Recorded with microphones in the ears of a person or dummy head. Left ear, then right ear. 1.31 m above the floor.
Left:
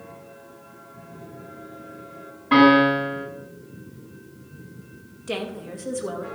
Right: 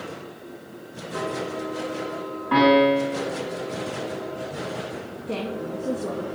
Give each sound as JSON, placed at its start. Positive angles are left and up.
{"t": 2.5, "sound": "a piano", "side_deg": 30, "distance_m": 5.0}
{"t": 5.3, "sound": "a woman speaking", "side_deg": 50, "distance_m": 2.0}